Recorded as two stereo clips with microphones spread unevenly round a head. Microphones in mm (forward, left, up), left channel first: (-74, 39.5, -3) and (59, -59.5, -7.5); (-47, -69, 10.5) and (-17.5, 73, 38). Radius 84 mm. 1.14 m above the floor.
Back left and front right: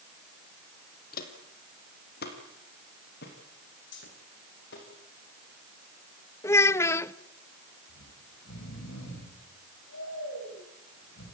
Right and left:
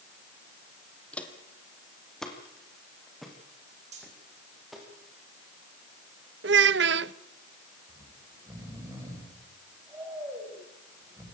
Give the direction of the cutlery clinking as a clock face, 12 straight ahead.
8 o'clock.